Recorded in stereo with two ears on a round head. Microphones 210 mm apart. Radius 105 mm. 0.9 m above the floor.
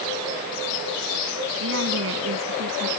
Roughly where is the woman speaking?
Right.